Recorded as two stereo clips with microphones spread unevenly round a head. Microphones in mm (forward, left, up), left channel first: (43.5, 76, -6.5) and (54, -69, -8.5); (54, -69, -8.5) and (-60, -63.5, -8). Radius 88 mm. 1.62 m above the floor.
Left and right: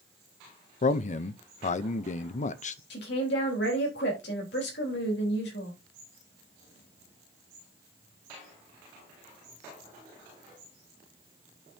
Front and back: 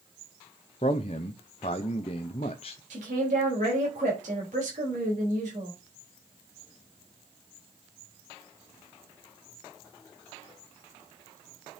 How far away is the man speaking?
About 0.7 m.